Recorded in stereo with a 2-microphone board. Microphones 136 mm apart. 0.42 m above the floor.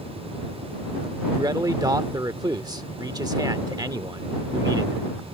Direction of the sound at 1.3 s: 30° right (ahead or behind).